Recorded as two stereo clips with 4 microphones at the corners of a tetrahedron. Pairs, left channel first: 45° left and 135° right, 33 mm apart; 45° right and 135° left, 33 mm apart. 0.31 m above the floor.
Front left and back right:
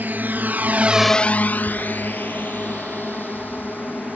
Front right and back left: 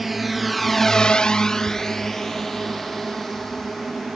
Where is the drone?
140° right; by 4.2 s 35° left.